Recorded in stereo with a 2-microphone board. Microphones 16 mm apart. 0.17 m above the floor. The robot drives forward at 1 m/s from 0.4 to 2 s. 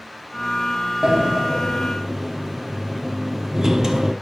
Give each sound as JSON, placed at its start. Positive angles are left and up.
{"t": 1.0, "sound": "a sliding door", "side_deg": -55, "distance_m": 1.4}